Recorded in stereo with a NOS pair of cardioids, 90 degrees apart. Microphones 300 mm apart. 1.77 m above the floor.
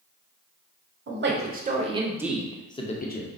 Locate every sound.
1.1 s a man speaking: 40° right, 1.4 m; by 3.3 s 35° left, 1.1 m